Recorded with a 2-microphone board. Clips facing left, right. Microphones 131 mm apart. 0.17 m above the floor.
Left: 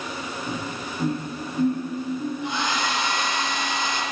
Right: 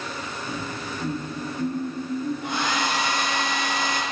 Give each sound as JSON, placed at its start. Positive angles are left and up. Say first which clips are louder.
{"t": 0.5, "sound": "laughter", "louder": "even", "side_deg": 50, "distance_m": 2.5}
{"t": 2.4, "sound": "a hair dryer", "louder": "even", "side_deg": -60, "distance_m": 1.5}